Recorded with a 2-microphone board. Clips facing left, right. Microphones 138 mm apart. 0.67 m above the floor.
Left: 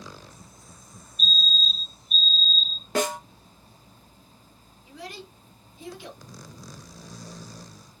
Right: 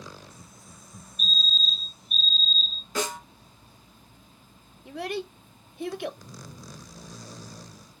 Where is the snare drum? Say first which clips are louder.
Left 5 dB; 65° left (ahead or behind), 1.5 m.